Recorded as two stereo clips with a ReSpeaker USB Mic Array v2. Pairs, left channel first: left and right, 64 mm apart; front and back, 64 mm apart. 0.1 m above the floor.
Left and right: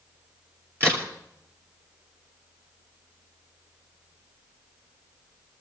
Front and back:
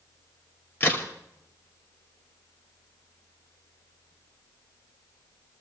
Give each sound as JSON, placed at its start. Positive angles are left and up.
{"t": 0.8, "sound": "a crack", "azimuth_deg": -50, "distance_m": 2.5}